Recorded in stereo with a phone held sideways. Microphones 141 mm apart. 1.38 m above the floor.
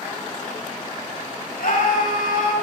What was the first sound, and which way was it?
A scream, 75° left (ahead or behind).